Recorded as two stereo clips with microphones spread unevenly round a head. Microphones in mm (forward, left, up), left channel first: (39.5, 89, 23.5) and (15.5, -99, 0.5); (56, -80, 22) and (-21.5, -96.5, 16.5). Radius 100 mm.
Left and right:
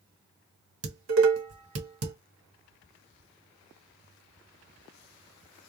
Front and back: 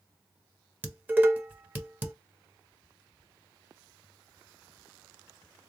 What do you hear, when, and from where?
0.8 s dishes clattering: 100° right, 1.3 m